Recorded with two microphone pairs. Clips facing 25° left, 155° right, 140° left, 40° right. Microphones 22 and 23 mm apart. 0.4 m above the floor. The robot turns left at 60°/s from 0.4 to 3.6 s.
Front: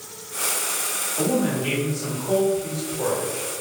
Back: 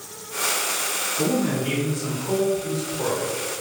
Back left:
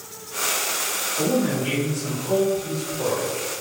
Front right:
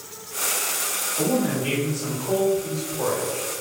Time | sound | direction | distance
1.2 | a man speaking | 55° left | 1.6 m